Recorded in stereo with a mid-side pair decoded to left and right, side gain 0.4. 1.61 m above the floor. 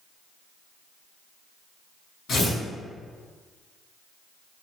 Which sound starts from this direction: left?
Tearing paper, at 2.3 s.